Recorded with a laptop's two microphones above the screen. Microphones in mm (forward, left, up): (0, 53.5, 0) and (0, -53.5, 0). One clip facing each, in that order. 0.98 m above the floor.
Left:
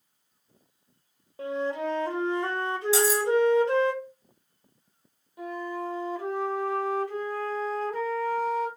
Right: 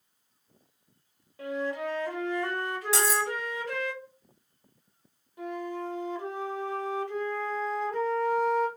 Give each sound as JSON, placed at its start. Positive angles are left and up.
{"t": 1.4, "sound": "a flute", "side_deg": 30, "distance_m": 0.7}
{"t": 2.9, "sound": "cutlery clinking", "side_deg": -75, "distance_m": 1.7}
{"t": 5.4, "sound": "a flute", "side_deg": 5, "distance_m": 0.9}